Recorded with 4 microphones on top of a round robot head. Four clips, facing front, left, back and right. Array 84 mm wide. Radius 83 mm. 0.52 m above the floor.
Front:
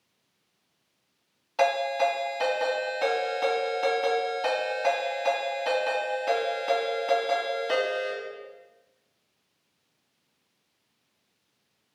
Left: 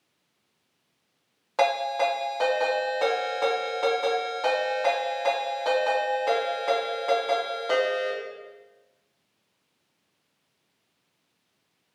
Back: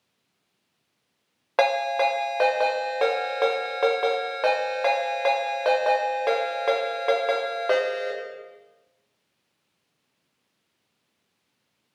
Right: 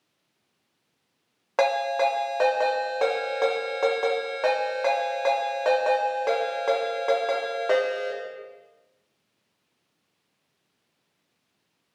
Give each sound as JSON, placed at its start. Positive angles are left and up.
{"t": 1.6, "sound": "a ringtone", "azimuth_deg": -155, "distance_m": 1.8}